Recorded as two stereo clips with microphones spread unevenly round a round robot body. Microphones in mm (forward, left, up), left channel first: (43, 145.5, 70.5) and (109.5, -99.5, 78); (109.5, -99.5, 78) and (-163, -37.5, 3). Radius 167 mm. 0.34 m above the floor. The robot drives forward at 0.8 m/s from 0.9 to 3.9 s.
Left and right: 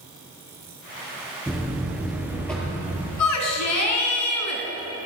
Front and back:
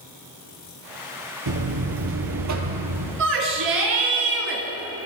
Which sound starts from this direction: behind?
A buzzer, at 1.5 s.